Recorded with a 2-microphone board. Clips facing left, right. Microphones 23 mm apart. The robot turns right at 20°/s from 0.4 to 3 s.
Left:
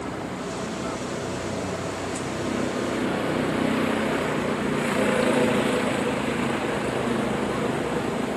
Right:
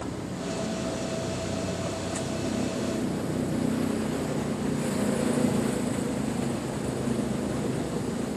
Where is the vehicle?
50° left; by 8.4 s 100° left.